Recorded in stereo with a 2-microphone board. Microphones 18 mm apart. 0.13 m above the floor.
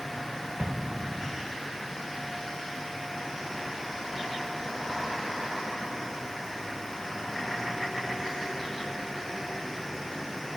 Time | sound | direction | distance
0.6 | an explosion | 65° right (ahead or behind) | 2.5 m